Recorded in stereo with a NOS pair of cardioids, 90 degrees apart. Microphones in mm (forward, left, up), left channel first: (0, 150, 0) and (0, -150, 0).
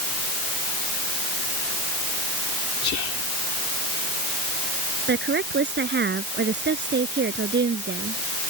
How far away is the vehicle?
I don't hear a vehicle.